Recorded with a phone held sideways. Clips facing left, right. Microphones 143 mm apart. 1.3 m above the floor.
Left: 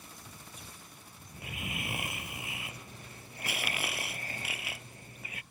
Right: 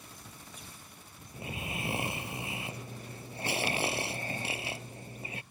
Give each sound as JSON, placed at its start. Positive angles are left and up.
{"t": 1.3, "sound": "snoring", "side_deg": -30}